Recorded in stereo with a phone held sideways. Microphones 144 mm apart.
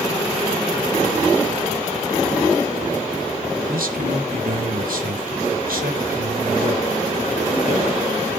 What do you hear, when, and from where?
3.7 s a man speaking: 85° right, 3.5 m